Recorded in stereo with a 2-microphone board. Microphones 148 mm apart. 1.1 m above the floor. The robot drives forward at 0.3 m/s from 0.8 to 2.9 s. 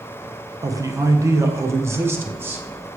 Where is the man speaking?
25° right (ahead or behind), 0.6 m; by 3.0 s 15° right (ahead or behind), 1.0 m.